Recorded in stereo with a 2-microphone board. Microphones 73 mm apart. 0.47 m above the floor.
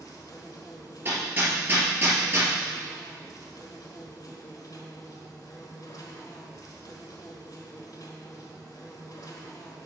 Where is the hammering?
30° right (ahead or behind), 3 m.